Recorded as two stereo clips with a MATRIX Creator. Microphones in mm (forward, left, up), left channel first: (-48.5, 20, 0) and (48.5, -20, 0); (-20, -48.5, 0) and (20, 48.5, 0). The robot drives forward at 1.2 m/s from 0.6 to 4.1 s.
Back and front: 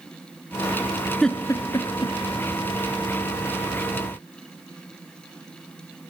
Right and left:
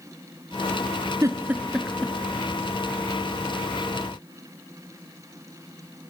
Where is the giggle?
75° left, 0.6 m; by 2.1 s 160° left, 1.2 m.